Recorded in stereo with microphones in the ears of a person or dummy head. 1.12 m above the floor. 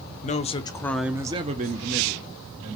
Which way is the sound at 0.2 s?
35° left (ahead or behind).